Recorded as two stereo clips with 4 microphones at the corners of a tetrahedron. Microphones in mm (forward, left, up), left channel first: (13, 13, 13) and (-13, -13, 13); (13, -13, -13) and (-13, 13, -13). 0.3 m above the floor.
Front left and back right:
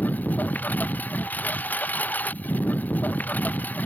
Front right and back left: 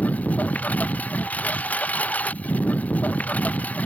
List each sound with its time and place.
0.0 s a lawn mower: straight ahead